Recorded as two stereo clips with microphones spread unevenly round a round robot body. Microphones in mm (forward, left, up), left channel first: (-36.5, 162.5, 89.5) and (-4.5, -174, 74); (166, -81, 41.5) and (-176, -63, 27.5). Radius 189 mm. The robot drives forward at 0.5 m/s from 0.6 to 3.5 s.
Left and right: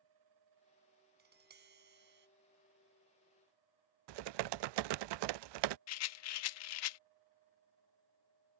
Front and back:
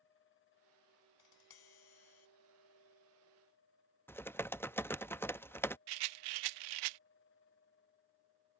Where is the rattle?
140° left.